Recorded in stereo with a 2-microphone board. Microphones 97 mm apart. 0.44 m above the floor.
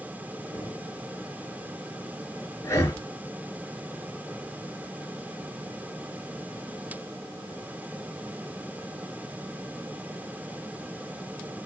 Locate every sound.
0.5 s knocking: 40° left (ahead or behind), 6.5 m
2.6 s breathing: 30° left (ahead or behind), 2 m